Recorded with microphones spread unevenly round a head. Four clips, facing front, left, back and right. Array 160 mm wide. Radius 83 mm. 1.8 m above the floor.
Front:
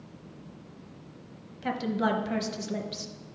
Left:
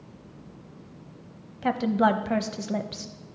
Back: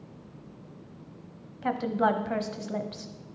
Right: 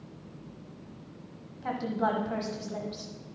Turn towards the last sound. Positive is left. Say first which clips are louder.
# left 7 dB, back 2 dB
turn(degrees=90)